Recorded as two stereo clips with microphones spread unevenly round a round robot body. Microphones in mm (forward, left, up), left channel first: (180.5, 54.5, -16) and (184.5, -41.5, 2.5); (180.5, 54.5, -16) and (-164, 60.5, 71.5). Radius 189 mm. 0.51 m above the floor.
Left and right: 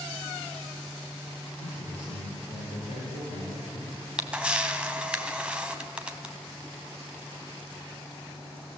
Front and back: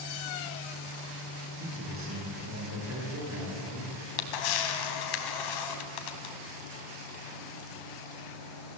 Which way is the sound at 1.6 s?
120° left.